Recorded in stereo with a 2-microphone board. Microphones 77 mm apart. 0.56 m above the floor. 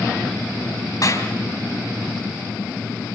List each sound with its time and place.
1.0 s a clap: 50° left (ahead or behind), 4 m